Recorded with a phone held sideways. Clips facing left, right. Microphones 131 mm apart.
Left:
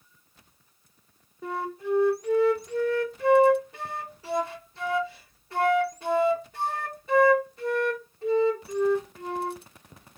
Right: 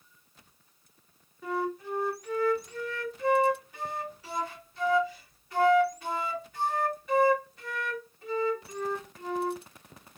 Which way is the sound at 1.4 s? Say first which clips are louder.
Left 1 dB; 30° left (ahead or behind).